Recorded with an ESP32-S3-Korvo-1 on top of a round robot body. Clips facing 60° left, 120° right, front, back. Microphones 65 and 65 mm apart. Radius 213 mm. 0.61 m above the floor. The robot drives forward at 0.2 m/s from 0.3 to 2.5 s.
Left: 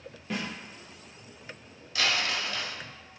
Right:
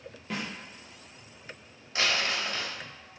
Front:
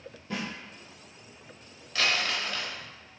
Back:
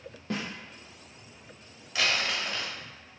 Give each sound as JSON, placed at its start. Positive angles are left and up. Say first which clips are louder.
{"t": 0.3, "sound": "a snare drum", "louder": "left 1 dB, back 1 dB", "azimuth_deg": 150, "distance_m": 0.5}
{"t": 1.9, "sound": "crumpling", "louder": "even, even", "azimuth_deg": -105, "distance_m": 1.2}